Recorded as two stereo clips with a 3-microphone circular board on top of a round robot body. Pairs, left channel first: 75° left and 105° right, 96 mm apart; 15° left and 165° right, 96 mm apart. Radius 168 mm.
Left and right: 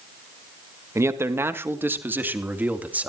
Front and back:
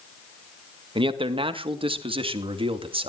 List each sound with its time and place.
0.9 s a man speaking: 160° right, 1.9 m; by 3.1 s straight behind, 3 m